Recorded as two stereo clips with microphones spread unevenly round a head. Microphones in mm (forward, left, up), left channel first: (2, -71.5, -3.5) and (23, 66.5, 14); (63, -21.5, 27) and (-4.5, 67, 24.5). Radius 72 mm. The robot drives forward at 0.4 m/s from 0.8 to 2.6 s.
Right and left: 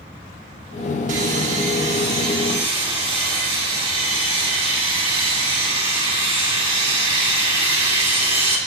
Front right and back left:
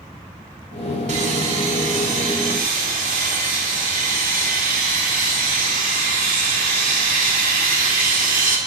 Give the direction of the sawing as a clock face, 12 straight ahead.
8 o'clock.